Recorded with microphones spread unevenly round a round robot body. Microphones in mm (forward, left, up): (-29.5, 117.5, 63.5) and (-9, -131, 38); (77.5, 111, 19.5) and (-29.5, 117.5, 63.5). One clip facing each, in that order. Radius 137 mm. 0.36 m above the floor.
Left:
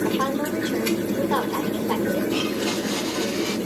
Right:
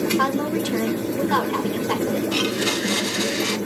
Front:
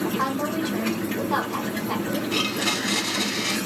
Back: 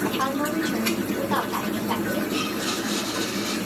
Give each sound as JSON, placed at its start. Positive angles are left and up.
{"t": 0.2, "sound": "a woman speaking", "azimuth_deg": -80, "distance_m": 1.7}
{"t": 2.3, "sound": "a blender", "azimuth_deg": -20, "distance_m": 0.7}